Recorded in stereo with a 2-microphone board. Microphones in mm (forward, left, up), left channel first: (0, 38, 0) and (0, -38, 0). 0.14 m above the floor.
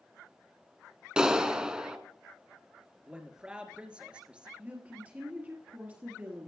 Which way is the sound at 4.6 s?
25° right (ahead or behind).